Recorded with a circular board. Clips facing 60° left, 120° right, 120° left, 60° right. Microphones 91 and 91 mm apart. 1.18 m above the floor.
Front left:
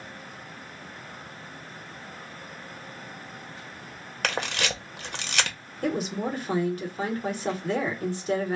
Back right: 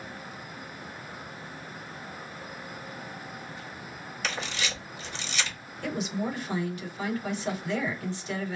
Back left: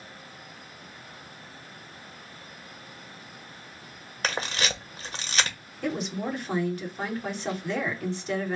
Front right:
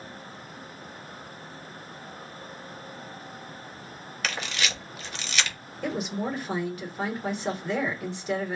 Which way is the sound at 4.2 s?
70° left.